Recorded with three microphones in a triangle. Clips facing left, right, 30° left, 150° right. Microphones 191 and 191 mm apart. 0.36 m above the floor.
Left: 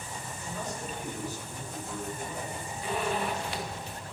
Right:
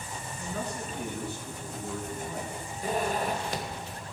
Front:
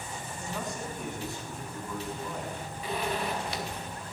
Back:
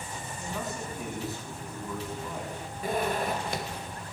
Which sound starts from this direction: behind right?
A zipper, at 2.8 s.